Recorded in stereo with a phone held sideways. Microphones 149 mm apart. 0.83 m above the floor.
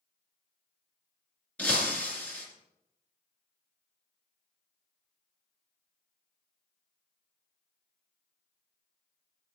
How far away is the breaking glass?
About 2.5 m.